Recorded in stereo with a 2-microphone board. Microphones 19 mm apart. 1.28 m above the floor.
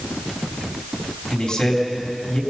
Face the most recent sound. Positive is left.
turn(degrees=55)  # may be behind; listen again after turning